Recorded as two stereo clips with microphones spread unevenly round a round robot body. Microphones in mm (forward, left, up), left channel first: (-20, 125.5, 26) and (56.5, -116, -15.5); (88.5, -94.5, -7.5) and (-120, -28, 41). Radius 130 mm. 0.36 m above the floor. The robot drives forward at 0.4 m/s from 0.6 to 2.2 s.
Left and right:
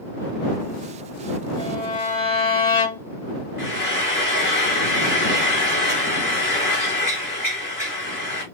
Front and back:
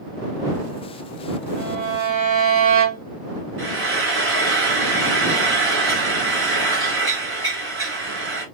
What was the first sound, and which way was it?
A violin, 175° right.